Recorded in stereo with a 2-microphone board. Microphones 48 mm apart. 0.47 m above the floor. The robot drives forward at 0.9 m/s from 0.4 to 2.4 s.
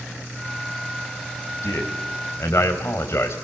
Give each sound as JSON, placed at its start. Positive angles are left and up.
{"t": 1.6, "sound": "a man speaking", "side_deg": 65, "distance_m": 3.0}